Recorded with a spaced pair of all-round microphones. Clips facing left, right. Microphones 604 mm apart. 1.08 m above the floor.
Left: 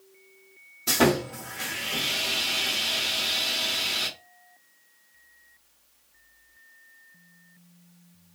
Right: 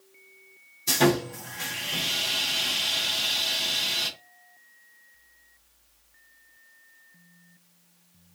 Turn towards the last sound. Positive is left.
turn(degrees=75)  # may be behind; listen again after turning